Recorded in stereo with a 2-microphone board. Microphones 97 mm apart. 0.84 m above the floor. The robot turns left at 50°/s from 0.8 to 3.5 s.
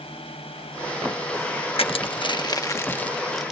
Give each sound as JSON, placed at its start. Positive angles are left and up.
{"t": 0.0, "sound": "a drone", "side_deg": 75}
{"t": 1.8, "sound": "crushing", "side_deg": 75}